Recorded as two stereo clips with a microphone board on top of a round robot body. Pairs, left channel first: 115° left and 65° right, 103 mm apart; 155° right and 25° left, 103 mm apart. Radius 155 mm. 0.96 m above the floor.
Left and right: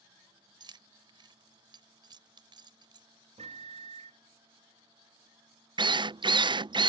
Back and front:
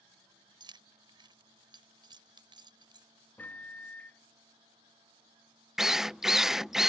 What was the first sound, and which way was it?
Keys jangling, 25° right.